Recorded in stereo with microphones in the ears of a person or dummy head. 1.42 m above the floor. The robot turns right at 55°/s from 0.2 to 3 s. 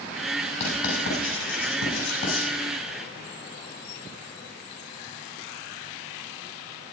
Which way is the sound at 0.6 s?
40° left (ahead or behind).